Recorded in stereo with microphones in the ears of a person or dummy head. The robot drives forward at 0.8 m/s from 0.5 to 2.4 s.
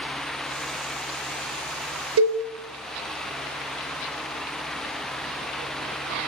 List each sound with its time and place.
2.2 s a cowbell: 80° right, 0.8 m; by 2.4 s 70° right (ahead or behind), 0.8 m